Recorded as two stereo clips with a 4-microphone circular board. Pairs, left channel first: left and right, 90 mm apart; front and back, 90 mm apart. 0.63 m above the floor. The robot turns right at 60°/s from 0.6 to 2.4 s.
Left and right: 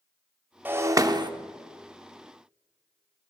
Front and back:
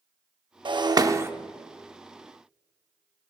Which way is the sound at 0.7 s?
160° right.